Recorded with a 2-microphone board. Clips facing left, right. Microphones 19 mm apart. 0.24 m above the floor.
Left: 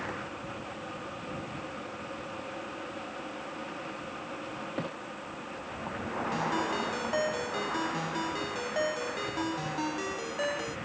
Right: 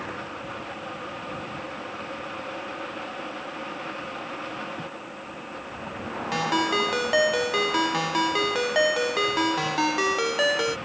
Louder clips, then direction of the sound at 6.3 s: Right 8 dB; 55° right (ahead or behind).